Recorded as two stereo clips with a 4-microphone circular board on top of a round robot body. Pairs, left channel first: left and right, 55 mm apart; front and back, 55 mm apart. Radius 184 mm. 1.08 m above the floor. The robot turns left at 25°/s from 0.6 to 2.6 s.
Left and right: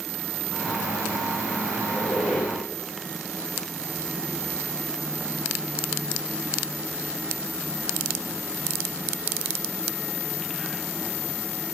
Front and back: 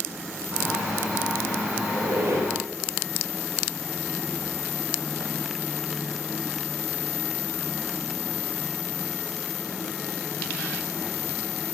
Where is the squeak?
150° right, 4 m; by 2.5 s 165° right, 4 m.